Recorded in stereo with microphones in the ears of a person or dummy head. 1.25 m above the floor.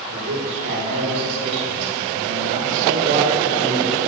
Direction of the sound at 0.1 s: 70° right (ahead or behind).